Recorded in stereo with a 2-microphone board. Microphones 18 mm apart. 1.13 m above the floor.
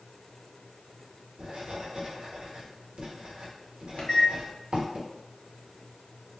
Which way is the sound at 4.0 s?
55° left (ahead or behind).